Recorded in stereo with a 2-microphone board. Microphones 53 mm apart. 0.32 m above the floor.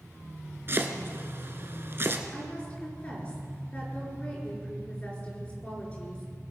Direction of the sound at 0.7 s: 45° right (ahead or behind).